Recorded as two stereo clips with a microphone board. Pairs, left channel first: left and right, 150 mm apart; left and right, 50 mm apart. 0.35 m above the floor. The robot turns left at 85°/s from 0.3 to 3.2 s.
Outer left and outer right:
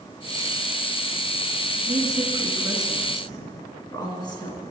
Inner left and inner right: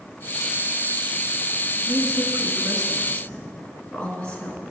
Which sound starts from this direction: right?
A woman speaking, at 1.9 s.